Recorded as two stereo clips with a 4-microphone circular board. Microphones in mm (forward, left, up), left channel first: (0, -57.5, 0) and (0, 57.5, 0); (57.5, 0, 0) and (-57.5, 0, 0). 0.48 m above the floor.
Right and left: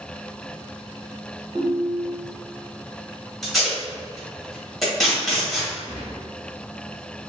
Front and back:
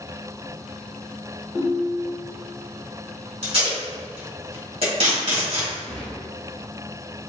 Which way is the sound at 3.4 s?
Straight behind.